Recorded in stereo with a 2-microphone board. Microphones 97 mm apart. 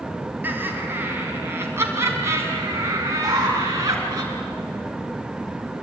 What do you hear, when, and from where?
0.4 s laughter: 20° right (ahead or behind), 5 m; by 4.2 s 35° right (ahead or behind), 7 m
3.2 s an alarm: 40° right (ahead or behind), 7.5 m